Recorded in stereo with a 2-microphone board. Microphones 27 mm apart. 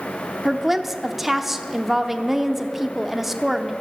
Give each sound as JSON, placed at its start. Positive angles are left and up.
{"t": 0.5, "sound": "a woman speaking", "side_deg": -10, "distance_m": 0.9}